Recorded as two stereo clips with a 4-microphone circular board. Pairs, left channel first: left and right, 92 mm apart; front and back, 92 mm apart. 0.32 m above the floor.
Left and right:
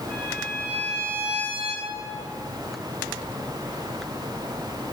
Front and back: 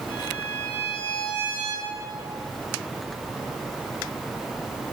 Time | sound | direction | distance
0.1 | a violin | 20° right | 6.5 m